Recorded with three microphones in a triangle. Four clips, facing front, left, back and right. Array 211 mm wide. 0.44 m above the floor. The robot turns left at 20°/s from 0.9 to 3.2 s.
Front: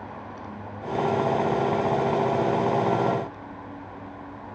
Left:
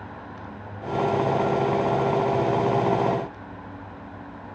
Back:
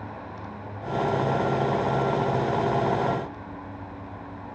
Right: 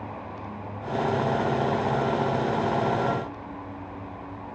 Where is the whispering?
I don't hear whispering.